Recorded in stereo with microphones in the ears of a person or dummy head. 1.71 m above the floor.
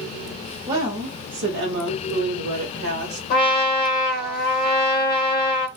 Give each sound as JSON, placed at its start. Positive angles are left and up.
{"t": 0.7, "sound": "a woman speaking", "side_deg": -15, "distance_m": 0.8}
{"t": 3.3, "sound": "a trumpet", "side_deg": 45, "distance_m": 0.9}